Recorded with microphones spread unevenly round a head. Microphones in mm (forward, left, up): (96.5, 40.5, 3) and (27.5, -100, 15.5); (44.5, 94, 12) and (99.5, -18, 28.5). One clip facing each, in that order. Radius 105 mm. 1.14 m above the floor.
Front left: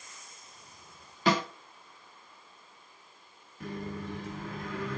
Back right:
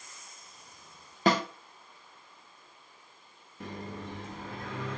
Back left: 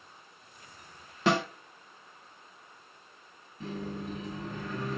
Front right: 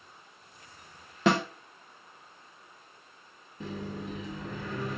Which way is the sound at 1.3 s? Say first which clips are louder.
Back right 1 dB, front right 2 dB; 70° right.